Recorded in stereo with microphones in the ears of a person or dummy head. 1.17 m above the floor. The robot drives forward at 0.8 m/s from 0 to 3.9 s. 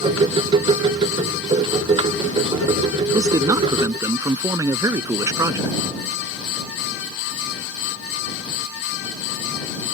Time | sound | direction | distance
3.1 | a man speaking | 20° right (ahead or behind) | ?